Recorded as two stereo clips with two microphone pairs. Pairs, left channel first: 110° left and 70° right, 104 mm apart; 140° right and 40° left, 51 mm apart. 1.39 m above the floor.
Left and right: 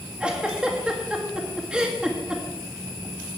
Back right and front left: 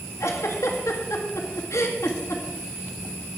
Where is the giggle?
145° right, 1.9 m.